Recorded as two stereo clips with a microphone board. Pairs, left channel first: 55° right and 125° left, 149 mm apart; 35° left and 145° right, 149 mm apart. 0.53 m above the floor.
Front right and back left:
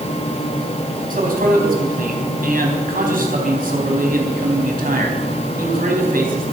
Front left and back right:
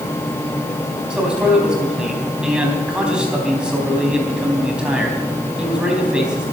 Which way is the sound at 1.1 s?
130° left.